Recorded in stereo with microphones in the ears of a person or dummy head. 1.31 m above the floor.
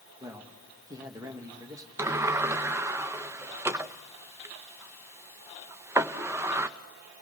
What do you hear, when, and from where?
0.2 s a man speaking: 15° right (ahead or behind), 2.0 m
2.0 s a sliding door: 15° right (ahead or behind), 0.6 m